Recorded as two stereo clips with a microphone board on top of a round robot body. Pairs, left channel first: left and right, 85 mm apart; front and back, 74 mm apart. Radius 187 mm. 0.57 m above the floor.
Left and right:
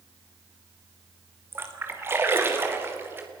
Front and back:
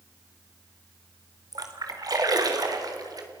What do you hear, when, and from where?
1.5 s a splash: 150° right, 3 m